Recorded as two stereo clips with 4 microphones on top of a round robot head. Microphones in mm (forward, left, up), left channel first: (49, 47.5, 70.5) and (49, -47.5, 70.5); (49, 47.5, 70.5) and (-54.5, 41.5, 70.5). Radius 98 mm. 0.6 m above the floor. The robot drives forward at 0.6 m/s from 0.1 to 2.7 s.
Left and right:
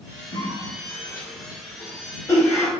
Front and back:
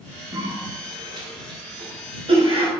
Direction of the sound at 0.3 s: 130° left.